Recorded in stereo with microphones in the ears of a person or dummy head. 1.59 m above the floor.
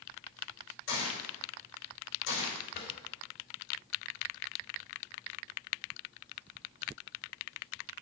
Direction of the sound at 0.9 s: 80° left.